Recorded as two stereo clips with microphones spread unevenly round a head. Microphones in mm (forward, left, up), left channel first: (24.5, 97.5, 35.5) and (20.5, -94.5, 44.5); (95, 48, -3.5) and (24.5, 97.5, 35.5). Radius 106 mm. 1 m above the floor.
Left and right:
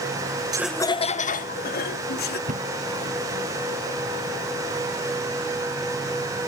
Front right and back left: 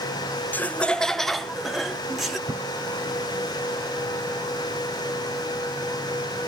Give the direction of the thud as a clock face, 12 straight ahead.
5 o'clock.